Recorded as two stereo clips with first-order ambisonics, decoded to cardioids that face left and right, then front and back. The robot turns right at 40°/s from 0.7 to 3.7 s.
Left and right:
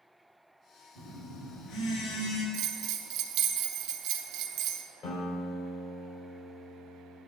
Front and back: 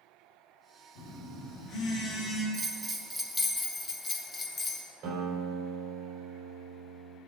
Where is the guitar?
135° left, 3.5 m.